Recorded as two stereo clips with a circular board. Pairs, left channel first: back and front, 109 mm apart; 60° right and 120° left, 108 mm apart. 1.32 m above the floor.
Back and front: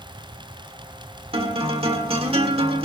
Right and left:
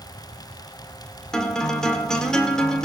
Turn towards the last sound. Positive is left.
turn(degrees=25)